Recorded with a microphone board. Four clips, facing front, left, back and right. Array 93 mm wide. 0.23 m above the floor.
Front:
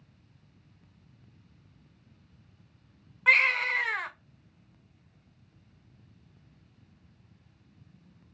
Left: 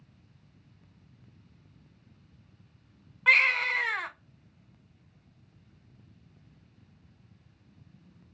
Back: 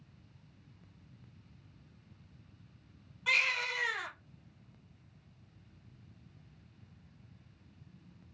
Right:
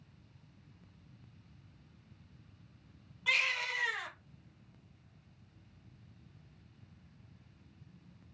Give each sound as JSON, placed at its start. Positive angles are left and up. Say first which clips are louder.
{"t": 3.3, "sound": "a baby crying", "louder": "left 10 dB, front 9 dB", "azimuth_deg": 50, "distance_m": 0.7}